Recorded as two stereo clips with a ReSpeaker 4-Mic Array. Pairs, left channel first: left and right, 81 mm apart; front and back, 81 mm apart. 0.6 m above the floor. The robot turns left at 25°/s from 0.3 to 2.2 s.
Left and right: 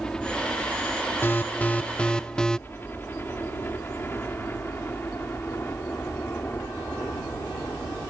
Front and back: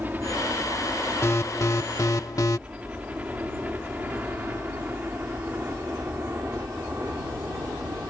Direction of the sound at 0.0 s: 155° left.